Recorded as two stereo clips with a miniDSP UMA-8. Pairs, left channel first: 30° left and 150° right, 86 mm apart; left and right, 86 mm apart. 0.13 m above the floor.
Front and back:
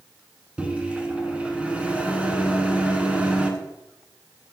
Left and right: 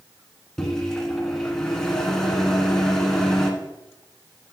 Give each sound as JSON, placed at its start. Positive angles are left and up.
{"t": 0.6, "sound": "a microwave", "azimuth_deg": 160, "distance_m": 1.2}